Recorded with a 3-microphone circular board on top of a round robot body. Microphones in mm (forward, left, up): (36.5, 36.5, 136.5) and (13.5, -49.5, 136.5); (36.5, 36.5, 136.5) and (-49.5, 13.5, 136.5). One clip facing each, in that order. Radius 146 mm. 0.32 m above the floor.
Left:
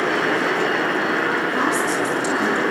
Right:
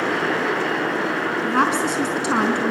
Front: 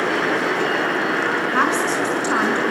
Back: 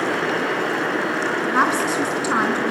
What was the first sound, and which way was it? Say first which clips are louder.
A woman speaking: right 1 dB, back 2 dB; 85° right.